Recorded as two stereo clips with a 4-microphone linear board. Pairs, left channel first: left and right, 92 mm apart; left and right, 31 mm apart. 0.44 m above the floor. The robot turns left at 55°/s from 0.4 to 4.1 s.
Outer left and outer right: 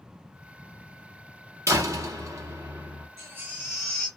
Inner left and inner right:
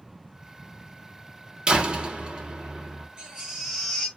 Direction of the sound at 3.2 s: 150° right.